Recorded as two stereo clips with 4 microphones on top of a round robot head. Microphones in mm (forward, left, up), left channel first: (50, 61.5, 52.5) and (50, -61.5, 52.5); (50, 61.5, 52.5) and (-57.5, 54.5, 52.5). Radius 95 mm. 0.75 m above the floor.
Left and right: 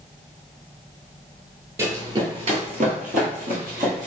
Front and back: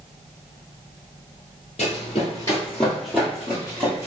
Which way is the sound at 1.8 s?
30° right.